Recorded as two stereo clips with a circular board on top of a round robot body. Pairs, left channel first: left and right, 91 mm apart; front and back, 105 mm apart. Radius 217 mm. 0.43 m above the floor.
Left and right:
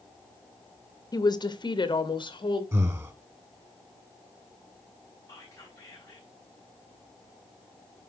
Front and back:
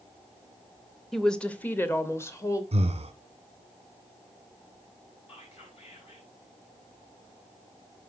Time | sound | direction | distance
1.1 | a woman speaking | 90° left | 1.1 m
2.7 | breathing | 150° right | 1.3 m
5.3 | whispering | 30° left | 4.5 m